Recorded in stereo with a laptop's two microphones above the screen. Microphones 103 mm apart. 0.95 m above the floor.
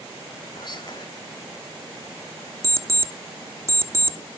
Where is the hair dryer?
I don't hear a hair dryer.